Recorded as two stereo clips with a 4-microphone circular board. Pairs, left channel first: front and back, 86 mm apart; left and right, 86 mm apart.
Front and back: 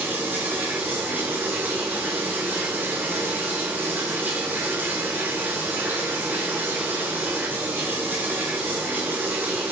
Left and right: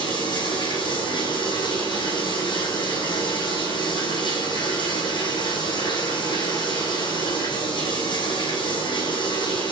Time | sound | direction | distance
0.0 | running water | 115° left | 4.5 m